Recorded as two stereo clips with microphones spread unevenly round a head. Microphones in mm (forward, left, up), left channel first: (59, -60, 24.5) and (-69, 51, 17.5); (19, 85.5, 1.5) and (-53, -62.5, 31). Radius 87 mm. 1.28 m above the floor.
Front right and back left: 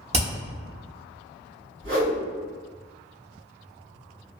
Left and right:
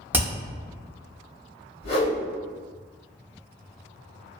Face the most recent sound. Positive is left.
turn(degrees=95)